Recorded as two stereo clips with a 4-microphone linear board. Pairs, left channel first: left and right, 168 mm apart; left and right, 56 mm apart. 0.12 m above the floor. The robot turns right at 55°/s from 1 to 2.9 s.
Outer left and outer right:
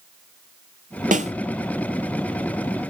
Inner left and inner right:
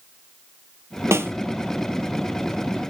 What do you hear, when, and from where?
1.1 s a snare drum: 50° right (ahead or behind), 0.7 m; by 1.3 s 40° right (ahead or behind), 0.7 m